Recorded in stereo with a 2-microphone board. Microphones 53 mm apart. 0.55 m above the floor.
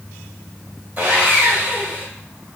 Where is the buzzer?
No buzzer in this recording.